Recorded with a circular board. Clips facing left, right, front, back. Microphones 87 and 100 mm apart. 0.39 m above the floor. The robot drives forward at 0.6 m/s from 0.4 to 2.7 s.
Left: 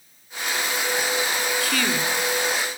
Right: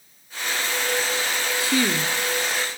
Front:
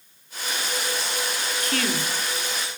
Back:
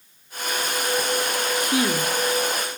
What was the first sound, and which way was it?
A woman speaking, 115° right.